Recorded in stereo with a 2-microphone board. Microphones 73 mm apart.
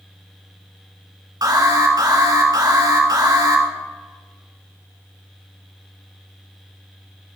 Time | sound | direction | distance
1.4 | an alarm | 60° right (ahead or behind) | 2 m